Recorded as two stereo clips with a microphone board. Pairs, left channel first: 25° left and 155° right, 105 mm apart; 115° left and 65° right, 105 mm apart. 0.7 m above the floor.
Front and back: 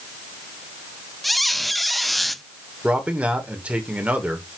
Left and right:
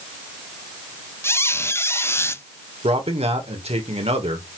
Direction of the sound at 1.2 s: 110° left.